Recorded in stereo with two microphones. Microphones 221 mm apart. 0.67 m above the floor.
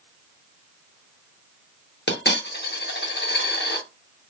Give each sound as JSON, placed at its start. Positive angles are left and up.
{"t": 2.1, "sound": "a dropped coin", "side_deg": 50, "distance_m": 0.6}